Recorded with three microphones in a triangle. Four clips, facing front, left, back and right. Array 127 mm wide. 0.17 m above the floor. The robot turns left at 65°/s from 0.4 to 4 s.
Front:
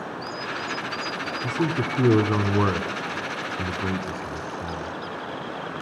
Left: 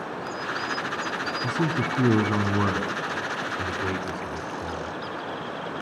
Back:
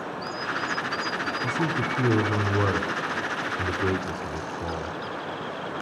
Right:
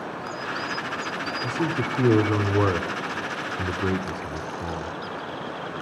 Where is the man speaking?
70° left, 1.1 m; by 4.9 s 95° right, 1.1 m.